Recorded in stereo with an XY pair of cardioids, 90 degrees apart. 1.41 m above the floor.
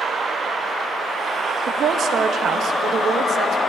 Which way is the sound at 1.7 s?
70° right.